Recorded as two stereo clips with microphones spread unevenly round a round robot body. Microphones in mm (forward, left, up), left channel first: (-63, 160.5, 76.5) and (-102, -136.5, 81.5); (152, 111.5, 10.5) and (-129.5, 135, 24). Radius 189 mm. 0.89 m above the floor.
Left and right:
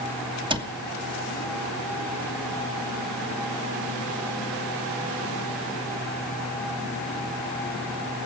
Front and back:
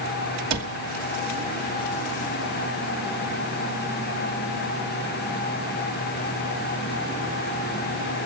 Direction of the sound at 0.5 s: 170° right.